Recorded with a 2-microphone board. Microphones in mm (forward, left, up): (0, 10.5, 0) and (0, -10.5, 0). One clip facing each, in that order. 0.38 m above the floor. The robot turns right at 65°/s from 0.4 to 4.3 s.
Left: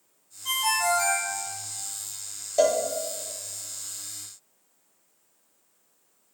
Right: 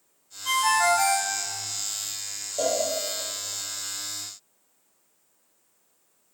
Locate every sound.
0.5 s a ringtone: 175° right, 0.8 m; by 1.3 s 120° right, 0.8 m
2.6 s a cowbell: 50° left (ahead or behind), 0.6 m; by 2.8 s 45° left (ahead or behind), 0.6 m